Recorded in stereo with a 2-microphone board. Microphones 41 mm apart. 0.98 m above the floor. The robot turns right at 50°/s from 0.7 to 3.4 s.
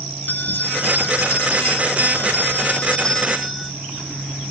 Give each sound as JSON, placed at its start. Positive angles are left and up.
{"t": 0.3, "sound": "a bell", "azimuth_deg": 45}